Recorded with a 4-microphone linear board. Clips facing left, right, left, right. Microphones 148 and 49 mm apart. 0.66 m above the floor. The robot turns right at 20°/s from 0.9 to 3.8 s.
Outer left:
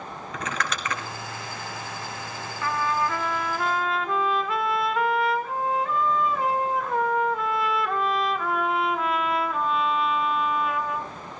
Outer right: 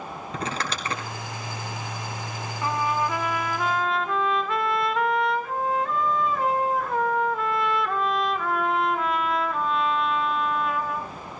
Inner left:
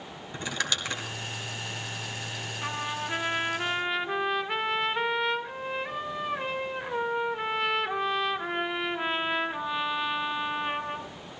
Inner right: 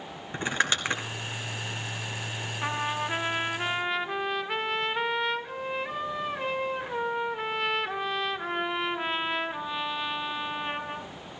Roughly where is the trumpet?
Right.